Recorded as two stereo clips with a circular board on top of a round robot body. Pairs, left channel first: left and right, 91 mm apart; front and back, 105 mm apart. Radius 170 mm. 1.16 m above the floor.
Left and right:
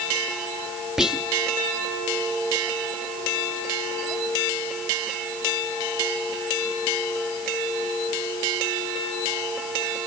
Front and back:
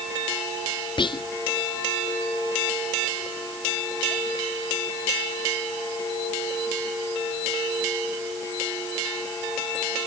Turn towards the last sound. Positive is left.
turn(degrees=-10)